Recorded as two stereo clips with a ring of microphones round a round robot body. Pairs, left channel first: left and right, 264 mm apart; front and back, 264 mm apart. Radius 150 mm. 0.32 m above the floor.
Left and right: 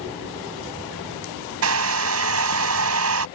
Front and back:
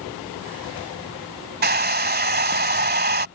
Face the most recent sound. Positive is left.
turn(degrees=-125)